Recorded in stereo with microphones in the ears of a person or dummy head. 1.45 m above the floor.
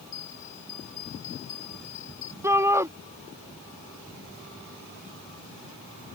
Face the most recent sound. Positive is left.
turn(degrees=-15)  # may be behind; listen again after turning